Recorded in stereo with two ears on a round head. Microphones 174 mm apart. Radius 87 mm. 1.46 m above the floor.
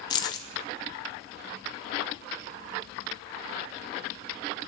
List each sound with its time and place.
0.1 s keys jangling: 20° left (ahead or behind), 0.7 m